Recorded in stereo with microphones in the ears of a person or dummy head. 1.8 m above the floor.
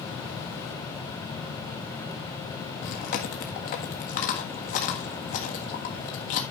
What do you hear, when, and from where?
2.8 s chewing: 40° left (ahead or behind), 1.5 m